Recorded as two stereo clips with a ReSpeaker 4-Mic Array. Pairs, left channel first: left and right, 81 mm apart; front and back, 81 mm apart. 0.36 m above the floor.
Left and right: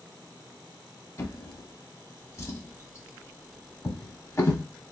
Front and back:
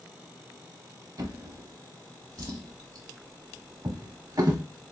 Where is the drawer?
140° left, 0.9 m.